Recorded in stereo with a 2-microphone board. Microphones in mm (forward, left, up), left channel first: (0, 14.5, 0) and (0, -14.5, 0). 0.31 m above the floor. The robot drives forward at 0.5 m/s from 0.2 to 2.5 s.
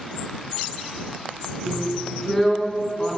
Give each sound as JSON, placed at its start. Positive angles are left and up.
{"t": 1.7, "sound": "a drill", "side_deg": 15, "distance_m": 3.5}